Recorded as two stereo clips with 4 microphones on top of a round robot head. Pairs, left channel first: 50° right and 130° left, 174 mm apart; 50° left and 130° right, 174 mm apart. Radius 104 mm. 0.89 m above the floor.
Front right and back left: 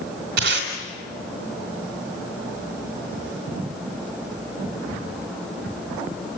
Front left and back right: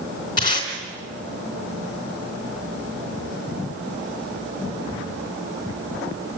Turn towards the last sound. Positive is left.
turn(degrees=115)